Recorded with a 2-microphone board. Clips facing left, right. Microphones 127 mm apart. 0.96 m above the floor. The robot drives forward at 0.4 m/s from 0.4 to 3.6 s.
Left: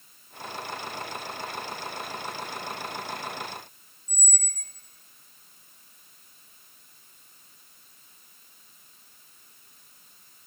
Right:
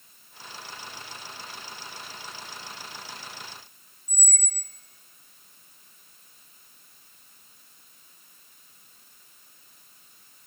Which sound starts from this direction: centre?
A squeak, at 4.1 s.